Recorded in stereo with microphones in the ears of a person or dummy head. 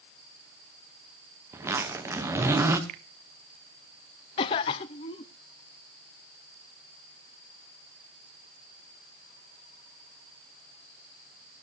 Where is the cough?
20° left (ahead or behind), 0.6 m.